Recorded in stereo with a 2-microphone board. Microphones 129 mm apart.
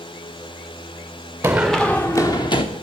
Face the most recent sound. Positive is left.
turn(degrees=40)  # may be behind; listen again after turning